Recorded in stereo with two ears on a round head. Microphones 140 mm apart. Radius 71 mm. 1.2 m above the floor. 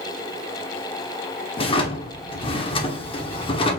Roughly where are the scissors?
No scissors in this recording.